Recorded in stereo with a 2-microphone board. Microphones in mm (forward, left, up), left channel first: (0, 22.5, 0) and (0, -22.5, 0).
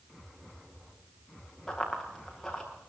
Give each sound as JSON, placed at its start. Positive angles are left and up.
{"t": 1.7, "sound": "running footsteps", "side_deg": 5, "distance_m": 7.5}